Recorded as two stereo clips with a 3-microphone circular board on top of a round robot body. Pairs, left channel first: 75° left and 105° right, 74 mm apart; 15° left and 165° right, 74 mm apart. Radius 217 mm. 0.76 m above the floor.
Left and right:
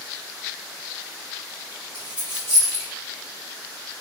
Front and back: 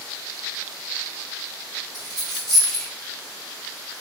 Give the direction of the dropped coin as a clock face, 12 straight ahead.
4 o'clock.